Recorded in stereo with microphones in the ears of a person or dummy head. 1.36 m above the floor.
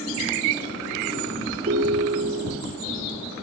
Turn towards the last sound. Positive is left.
turn(degrees=-35)  # may be behind; listen again after turning